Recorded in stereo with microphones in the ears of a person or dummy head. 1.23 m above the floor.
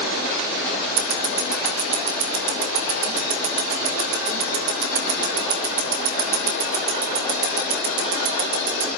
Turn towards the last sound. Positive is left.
turn(degrees=-70)  # may be behind; listen again after turning